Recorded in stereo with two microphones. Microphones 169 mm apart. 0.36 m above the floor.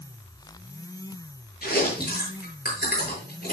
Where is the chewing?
70° left (ahead or behind), 7.5 m.